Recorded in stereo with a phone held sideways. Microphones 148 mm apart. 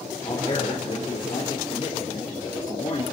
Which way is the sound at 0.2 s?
40° left (ahead or behind).